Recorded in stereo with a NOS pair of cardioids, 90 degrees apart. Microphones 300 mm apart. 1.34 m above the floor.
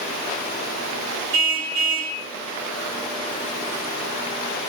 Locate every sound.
1.3 s a car horn: 70° right, 6 m